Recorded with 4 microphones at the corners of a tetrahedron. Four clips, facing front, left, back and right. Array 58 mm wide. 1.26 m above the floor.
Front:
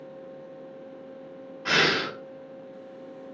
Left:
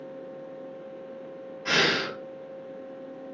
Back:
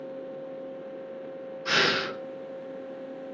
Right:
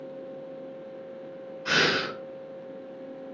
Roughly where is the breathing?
Ahead left.